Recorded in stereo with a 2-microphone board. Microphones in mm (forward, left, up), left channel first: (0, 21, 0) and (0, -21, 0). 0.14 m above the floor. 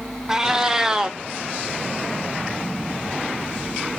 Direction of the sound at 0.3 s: 10° right (ahead or behind).